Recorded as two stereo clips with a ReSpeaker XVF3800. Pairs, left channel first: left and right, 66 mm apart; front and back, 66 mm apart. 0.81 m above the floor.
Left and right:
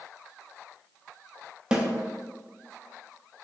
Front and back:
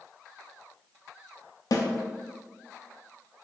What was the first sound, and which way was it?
A snare drum, 15° right.